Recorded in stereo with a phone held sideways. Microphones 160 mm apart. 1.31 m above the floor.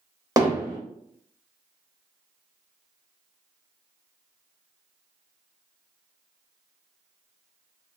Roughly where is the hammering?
Right.